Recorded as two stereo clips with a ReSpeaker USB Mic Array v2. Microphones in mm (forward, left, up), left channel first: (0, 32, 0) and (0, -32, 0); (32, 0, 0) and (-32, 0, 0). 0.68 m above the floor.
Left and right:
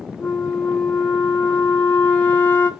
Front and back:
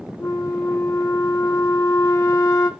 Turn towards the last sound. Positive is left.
turn(degrees=30)